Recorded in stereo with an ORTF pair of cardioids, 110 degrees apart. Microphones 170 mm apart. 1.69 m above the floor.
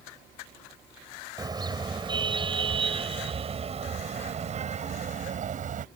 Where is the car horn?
25° right; by 5.8 s 50° right.